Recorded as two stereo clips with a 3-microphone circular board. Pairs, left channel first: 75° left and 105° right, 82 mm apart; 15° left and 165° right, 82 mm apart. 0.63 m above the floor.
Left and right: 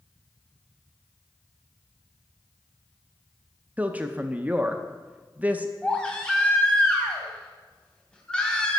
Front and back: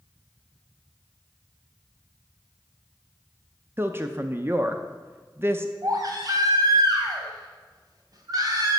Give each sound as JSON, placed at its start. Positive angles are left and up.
{"t": 3.8, "sound": "a woman speaking", "azimuth_deg": -155, "distance_m": 0.6}
{"t": 5.8, "sound": "a baby crying", "azimuth_deg": 155, "distance_m": 2.0}